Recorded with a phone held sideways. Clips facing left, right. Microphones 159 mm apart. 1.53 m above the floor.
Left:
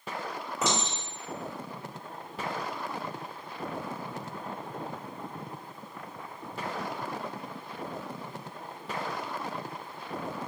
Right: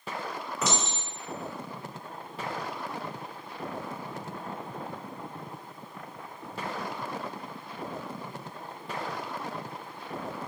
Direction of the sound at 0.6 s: 25° left (ahead or behind).